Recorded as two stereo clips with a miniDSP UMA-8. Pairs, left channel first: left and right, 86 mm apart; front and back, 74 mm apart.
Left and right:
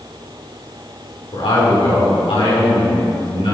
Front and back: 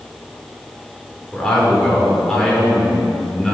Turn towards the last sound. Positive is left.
turn(degrees=85)